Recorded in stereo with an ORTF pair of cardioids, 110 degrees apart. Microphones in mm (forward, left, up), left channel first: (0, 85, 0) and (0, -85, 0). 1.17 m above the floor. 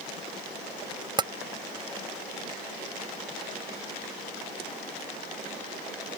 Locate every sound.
1.2 s tapping: 25° right